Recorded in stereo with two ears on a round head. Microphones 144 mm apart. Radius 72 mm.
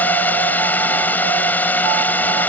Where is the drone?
10° left (ahead or behind).